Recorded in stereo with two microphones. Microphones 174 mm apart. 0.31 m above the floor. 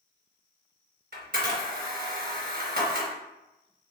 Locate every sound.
1.1 s a camera shutter: 70° right (ahead or behind), 1.9 m